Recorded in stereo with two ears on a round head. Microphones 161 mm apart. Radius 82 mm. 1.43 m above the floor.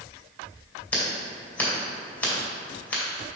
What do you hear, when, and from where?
0.9 s scissors: 10° left (ahead or behind), 1.9 m